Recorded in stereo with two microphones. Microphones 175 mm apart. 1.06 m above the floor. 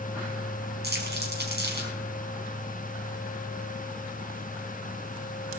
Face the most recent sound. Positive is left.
turn(degrees=-70)  # may be behind; listen again after turning